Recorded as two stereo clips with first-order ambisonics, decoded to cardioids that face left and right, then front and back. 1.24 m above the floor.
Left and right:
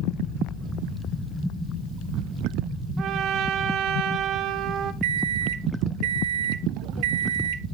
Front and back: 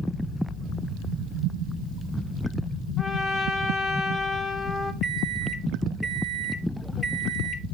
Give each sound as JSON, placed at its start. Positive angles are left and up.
{"t": 3.0, "sound": "a trumpet", "azimuth_deg": -85, "distance_m": 1.0}
{"t": 5.0, "sound": "a microwave", "azimuth_deg": -95, "distance_m": 0.7}